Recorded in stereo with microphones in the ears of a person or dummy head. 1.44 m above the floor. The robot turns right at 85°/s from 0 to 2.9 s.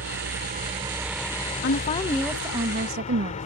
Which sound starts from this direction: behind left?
A woman speaking, at 1.6 s.